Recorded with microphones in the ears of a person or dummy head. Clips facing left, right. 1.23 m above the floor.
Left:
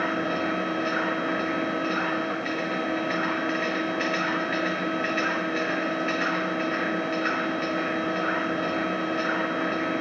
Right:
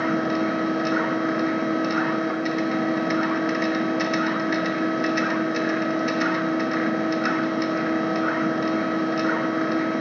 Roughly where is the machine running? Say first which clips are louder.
Right 5 dB; right.